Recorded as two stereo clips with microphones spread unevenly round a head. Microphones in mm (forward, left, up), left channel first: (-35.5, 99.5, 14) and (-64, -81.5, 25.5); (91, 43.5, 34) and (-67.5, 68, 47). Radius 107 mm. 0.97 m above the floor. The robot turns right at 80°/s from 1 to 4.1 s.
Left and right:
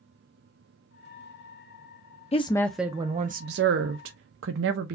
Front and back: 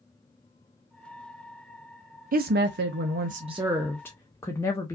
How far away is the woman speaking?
About 0.5 m.